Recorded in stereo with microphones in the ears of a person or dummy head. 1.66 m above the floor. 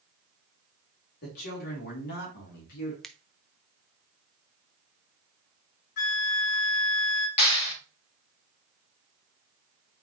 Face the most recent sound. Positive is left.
turn(degrees=30)  # may be behind; listen again after turning